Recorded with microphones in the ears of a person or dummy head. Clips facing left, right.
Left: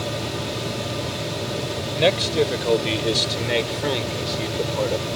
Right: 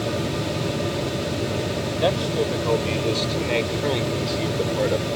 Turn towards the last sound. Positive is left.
turn(degrees=-20)  # may be behind; listen again after turning